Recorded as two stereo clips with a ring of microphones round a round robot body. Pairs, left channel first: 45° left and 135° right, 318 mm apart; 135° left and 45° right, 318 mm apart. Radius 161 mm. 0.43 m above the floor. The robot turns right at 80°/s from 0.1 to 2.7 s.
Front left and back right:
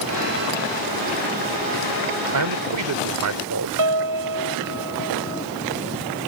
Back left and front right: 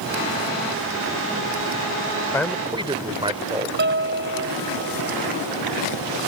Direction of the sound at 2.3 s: 145° right.